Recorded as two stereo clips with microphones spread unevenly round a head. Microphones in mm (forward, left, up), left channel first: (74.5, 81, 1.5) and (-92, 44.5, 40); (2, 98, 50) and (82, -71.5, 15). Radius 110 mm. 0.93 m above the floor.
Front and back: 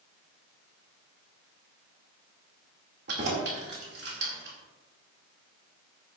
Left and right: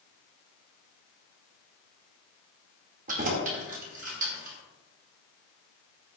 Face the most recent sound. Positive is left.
turn(degrees=-120)